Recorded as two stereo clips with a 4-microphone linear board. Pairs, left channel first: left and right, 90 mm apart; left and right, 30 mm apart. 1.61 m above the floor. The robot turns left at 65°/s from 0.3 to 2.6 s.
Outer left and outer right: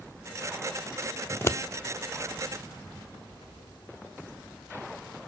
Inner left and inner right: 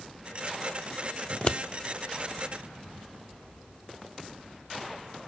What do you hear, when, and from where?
1.3 s scissors: 20° left (ahead or behind), 0.5 m; by 1.6 s 40° left (ahead or behind), 0.5 m